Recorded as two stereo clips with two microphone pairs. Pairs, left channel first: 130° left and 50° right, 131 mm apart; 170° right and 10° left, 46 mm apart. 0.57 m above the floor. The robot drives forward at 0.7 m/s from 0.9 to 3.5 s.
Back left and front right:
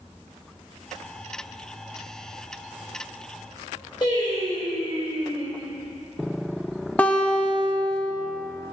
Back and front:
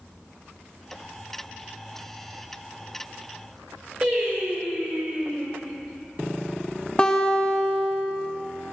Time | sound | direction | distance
4.0 | singing | 80° left | 2 m
7.0 | a guitar | 175° right | 0.7 m